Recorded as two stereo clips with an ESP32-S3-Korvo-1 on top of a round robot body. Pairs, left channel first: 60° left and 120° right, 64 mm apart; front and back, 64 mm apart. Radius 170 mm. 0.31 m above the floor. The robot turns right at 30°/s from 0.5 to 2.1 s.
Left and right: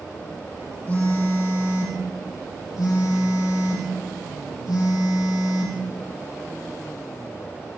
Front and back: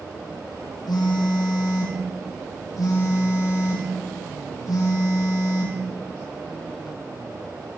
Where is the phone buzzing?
10° right, 4 m; by 5.8 s 30° left, 4 m.